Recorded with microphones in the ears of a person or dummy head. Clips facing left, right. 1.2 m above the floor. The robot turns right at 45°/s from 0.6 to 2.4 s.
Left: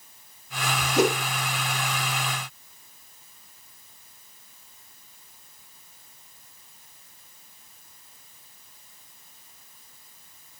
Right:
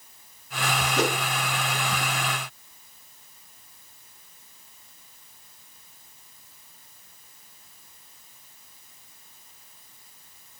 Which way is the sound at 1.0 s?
85° left.